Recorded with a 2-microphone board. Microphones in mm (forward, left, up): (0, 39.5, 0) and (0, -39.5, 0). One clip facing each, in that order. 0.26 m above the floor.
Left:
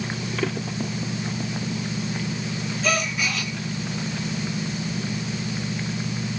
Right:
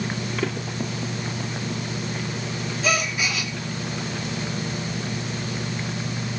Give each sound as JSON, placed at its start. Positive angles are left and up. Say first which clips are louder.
{"t": 2.8, "sound": "a gasp", "louder": "even", "side_deg": -5, "distance_m": 3.0}